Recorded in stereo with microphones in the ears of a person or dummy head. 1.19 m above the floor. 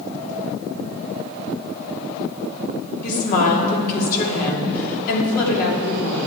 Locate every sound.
3.0 s a woman speaking: 50° left (ahead or behind), 2.5 m